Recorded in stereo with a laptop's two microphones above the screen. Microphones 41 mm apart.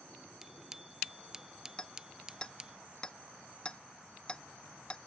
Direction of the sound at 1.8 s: 20° left (ahead or behind).